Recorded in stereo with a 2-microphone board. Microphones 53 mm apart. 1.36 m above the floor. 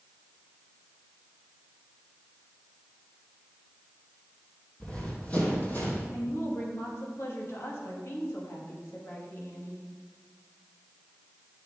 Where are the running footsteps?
20° left (ahead or behind), 3 m; by 6.0 s 35° left (ahead or behind), 3 m.